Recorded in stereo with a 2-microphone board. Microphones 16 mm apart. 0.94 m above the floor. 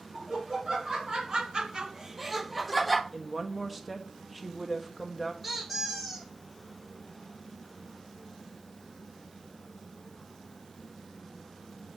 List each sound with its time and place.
0.1 s laughter: 40° right (ahead or behind), 1.5 m; by 3.0 s centre (ahead or behind), 1.1 m
3.1 s a woman speaking: 10° right (ahead or behind), 1.0 m
5.4 s a squeak: 10° right (ahead or behind), 5 m